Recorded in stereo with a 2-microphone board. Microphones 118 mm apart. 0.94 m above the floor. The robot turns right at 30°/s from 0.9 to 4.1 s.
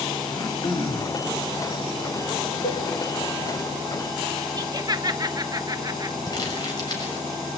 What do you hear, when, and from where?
0.3 s throat clearing: 40° left (ahead or behind), 2.5 m; by 1.2 s 35° left (ahead or behind), 2.5 m
2.6 s a cowbell: 70° left (ahead or behind), 2.5 m; by 2.8 s 65° left (ahead or behind), 2.5 m
4.6 s laughter: 30° right (ahead or behind), 0.6 m
6.3 s crumpling: 35° left (ahead or behind), 6 m